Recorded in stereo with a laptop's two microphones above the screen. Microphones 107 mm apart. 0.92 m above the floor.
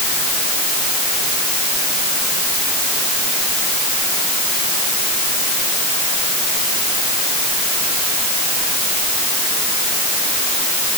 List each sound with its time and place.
Only background noise.